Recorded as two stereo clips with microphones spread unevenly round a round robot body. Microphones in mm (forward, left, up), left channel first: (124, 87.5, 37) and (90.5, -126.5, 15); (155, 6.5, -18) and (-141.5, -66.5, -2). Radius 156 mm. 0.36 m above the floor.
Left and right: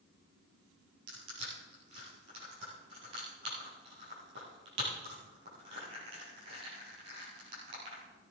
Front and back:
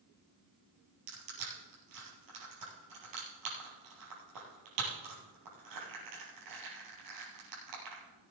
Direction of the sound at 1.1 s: 145° right.